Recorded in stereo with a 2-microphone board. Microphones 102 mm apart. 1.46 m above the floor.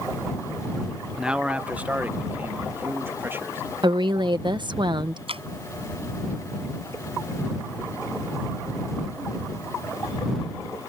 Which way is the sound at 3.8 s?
45° right (ahead or behind).